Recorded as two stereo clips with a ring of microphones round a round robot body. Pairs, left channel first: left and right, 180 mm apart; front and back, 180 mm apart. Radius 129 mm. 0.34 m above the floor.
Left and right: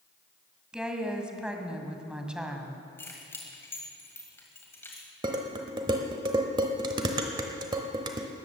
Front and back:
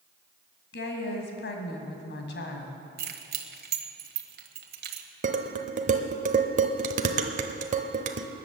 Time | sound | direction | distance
0.7 | a woman speaking | 5° right | 2.5 m
3.0 | keys jangling | 170° left | 1.5 m
5.2 | dishes clattering | 150° right | 0.9 m